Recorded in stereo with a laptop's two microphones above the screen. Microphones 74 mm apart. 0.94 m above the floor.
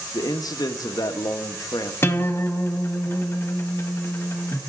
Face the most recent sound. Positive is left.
turn(degrees=35)  # may be behind; listen again after turning